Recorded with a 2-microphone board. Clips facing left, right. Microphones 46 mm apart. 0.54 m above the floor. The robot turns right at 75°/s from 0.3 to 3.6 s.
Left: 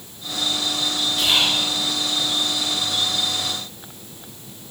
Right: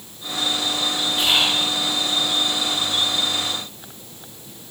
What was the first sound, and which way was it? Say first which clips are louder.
Whispering: even; 60° right.